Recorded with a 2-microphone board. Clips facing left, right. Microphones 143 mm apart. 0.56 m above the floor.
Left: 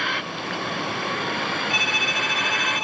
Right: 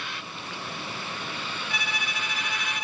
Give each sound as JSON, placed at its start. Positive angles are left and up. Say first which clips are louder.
{"t": 0.0, "sound": "a vehicle", "louder": "left 9 dB", "side_deg": 70}
{"t": 1.7, "sound": "a violin", "louder": "left 7 dB", "side_deg": 20}